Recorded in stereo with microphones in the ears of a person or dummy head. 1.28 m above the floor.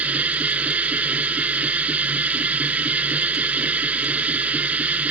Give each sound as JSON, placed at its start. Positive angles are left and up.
{"t": 0.0, "sound": "a machine running", "side_deg": -10}